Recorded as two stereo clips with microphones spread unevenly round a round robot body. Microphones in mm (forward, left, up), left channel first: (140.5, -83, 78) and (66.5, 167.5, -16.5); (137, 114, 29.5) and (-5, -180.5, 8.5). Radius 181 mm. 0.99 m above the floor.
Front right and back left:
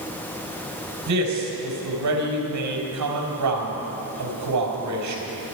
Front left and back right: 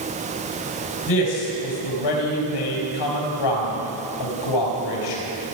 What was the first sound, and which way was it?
A man speaking, 95° left.